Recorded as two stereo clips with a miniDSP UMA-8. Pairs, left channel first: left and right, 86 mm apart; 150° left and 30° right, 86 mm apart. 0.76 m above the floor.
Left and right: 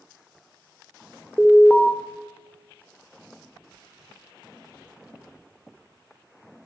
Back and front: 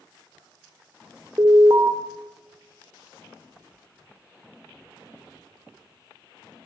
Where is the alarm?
10° left, 3 m.